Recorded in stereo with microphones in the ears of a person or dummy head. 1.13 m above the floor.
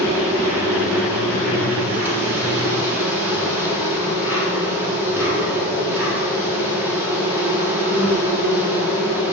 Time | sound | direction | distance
0.0 | an insect | 10° right (ahead or behind) | 3.5 m